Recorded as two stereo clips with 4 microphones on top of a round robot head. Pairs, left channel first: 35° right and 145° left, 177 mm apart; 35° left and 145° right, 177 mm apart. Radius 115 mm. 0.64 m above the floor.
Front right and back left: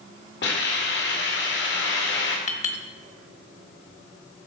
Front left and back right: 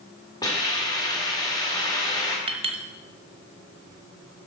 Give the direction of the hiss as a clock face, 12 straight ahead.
1 o'clock.